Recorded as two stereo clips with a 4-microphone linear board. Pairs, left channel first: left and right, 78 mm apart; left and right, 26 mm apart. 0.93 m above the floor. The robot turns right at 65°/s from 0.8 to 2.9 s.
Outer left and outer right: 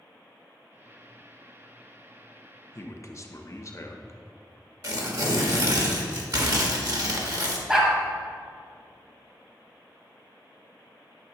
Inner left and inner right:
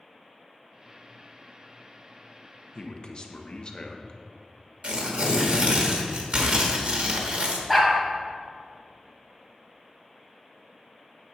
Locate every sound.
2.8 s a man speaking: 40° left (ahead or behind), 0.8 m
4.8 s tearing paper: 50° right (ahead or behind), 1.3 m
7.7 s a dog barking: 10° right (ahead or behind), 1.7 m